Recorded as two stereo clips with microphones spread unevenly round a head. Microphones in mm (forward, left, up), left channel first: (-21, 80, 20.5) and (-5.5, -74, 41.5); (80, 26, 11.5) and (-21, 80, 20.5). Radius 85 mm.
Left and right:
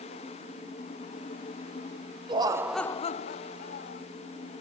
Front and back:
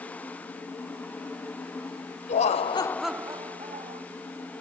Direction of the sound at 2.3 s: 20° right.